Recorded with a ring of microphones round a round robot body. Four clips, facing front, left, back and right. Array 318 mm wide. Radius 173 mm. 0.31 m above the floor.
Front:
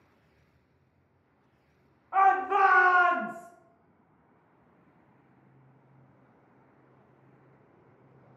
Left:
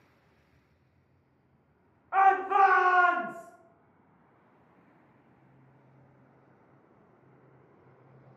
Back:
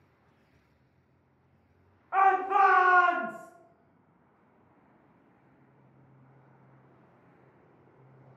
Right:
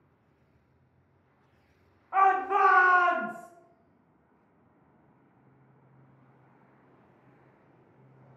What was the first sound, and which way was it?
A shout, 130° left.